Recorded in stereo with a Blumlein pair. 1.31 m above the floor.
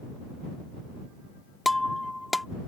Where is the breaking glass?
5° left.